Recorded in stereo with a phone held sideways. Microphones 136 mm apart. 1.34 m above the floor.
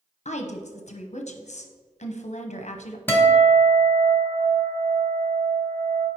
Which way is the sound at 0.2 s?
55° left (ahead or behind).